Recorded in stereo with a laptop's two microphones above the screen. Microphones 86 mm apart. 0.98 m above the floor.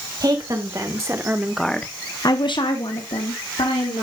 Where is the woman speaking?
50° right (ahead or behind), 1.5 m; by 4.0 s 80° left, 1.9 m.